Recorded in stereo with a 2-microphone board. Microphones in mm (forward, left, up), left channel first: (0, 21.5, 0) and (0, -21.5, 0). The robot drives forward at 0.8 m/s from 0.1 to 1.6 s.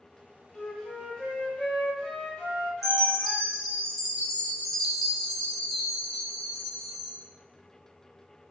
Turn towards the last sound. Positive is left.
turn(degrees=-10)  # may be behind; listen again after turning